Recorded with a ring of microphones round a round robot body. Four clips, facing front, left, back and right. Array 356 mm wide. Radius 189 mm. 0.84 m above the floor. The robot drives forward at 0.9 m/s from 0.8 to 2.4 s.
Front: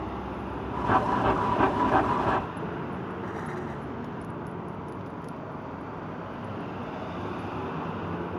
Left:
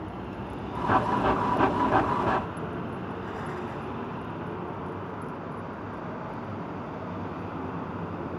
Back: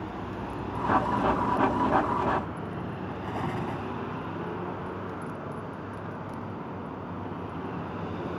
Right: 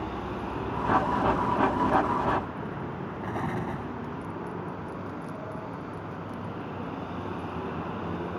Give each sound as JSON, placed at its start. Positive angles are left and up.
{"t": 3.2, "sound": "an explosion", "azimuth_deg": -130}